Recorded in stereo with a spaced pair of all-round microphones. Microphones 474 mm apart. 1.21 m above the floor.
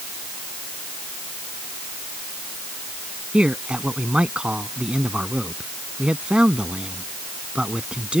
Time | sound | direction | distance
3.3 | a man speaking | centre (ahead or behind) | ?